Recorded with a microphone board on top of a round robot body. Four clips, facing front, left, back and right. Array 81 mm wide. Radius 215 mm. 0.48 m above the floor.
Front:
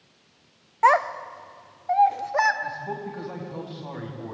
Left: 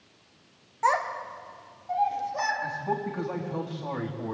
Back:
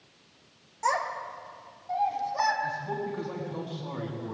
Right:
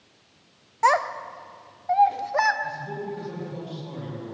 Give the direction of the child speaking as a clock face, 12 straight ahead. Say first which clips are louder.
Right 4 dB, front 9 dB; 12 o'clock.